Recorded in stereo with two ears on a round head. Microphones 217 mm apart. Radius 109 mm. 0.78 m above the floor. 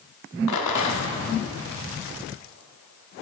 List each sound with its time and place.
0.5 s a rattle: 80° left, 1.0 m